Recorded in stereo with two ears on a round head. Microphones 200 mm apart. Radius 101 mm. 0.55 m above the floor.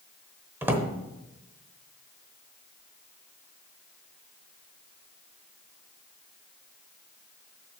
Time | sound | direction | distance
0.6 | a drawer | 10° right (ahead or behind) | 0.9 m